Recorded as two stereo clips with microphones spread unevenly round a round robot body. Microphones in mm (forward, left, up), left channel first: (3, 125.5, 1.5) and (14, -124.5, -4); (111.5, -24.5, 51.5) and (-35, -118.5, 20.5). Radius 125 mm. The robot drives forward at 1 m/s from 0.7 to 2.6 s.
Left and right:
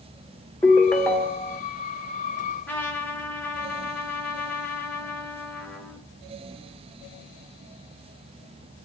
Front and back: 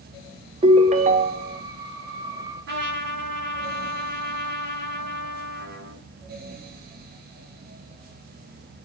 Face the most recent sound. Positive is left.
turn(degrees=175)